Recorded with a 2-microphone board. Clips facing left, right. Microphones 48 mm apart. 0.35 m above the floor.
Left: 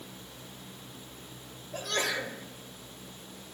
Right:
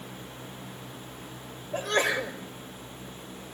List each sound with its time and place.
1.7 s a sneeze: 35° right (ahead or behind), 1.3 m